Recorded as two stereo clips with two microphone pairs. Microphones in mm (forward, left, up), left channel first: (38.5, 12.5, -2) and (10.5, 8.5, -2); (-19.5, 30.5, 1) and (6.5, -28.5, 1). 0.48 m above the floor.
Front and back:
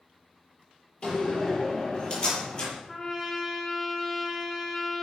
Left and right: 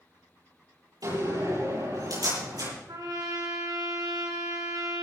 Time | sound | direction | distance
1.0 | a door slam | 50° right | 9 m
2.9 | a trumpet | 75° right | 4 m